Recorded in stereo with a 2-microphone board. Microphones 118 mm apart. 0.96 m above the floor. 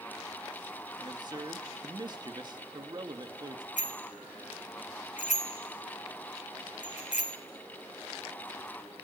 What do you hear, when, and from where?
1.0 s a man speaking: 40° right (ahead or behind), 1.5 m
3.8 s a bicycle bell: 90° left, 2.5 m